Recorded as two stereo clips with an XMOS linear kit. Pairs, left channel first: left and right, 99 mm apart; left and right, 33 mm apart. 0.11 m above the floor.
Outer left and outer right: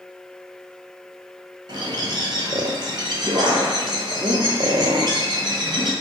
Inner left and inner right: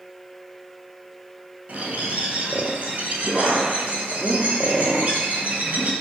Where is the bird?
50° right (ahead or behind), 0.6 m.